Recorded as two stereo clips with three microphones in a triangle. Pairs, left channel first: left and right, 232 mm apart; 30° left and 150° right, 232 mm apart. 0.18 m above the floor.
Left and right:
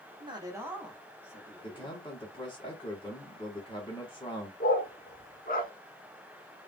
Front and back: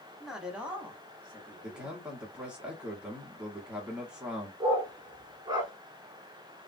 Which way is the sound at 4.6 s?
140° left.